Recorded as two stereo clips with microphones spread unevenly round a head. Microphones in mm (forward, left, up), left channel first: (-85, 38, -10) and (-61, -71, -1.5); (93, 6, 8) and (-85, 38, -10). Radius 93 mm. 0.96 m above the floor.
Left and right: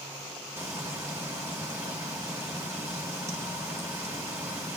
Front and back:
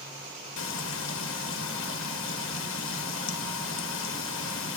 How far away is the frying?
About 1.4 m.